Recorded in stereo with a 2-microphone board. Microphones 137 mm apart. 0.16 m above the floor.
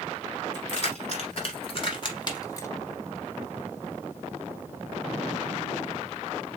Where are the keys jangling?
55° left (ahead or behind), 1.7 m; by 2.7 s 20° left (ahead or behind), 0.9 m.